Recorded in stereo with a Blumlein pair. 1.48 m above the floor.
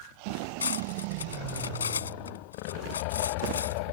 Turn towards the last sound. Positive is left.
turn(degrees=70)